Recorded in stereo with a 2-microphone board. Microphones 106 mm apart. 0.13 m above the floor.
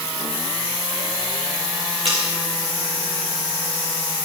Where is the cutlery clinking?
70° right (ahead or behind), 6.5 m.